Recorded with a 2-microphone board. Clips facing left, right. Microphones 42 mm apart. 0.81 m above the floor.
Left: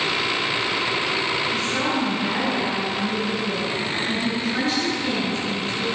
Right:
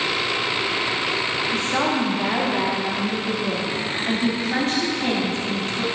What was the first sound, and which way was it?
A woman speaking, 65° right (ahead or behind).